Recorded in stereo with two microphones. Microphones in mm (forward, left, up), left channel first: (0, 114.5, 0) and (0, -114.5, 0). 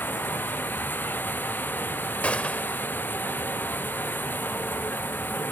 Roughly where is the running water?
Centre.